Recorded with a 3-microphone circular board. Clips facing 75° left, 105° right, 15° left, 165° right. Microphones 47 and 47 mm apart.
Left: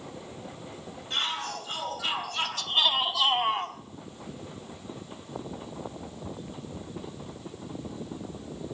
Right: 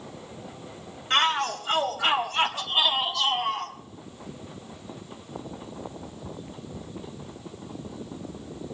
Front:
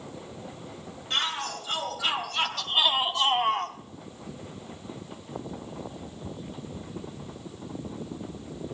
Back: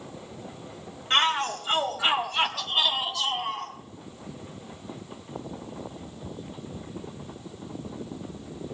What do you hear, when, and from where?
1.1 s a shout: 125° right, 2.5 m; by 3.8 s 20° left, 1.6 m